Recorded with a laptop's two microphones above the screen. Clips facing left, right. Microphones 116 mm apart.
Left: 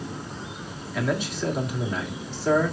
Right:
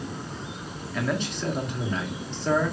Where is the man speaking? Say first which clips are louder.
Left 2 dB; 5° left (ahead or behind), 1.9 m.